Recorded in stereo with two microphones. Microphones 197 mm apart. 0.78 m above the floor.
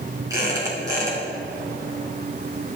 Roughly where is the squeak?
Centre.